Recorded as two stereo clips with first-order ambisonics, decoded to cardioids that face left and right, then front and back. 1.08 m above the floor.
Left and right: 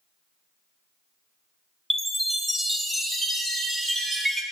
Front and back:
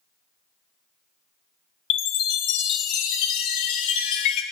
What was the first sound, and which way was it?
A chime, 10° right.